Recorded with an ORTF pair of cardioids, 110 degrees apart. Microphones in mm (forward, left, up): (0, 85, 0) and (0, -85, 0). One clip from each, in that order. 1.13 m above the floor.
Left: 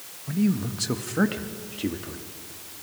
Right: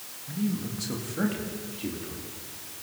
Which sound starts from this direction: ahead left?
A man speaking, at 0.3 s.